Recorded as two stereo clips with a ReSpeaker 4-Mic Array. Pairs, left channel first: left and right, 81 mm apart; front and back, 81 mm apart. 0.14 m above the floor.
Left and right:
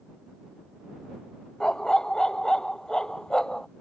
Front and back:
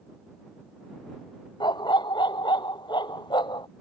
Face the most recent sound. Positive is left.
turn(degrees=10)